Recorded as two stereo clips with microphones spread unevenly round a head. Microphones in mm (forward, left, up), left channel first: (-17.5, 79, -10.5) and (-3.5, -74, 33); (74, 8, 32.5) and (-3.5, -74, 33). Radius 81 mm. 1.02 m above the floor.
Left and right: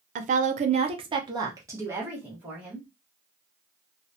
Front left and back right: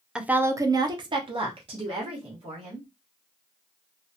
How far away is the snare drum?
No snare drum in this recording.